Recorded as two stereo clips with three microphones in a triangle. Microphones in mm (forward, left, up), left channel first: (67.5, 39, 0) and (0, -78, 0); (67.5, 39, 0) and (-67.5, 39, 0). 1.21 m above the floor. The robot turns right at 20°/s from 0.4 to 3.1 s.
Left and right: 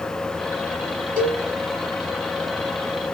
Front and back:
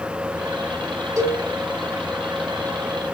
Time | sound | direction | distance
1.2 | a cowbell | 115° right | 1.7 m